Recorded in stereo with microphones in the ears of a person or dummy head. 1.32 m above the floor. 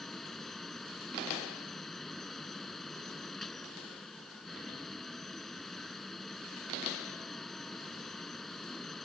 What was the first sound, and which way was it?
A fan, 5° left (ahead or behind).